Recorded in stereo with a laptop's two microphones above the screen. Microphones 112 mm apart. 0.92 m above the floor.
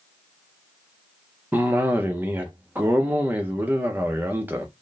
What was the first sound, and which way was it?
A cough, 15° right (ahead or behind).